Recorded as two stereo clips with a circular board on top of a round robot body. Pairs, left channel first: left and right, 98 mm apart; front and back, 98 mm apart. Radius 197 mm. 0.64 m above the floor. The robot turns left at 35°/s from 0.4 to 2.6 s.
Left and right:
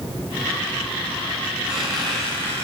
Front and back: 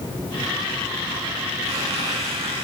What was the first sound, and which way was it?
A squeak, 170° right.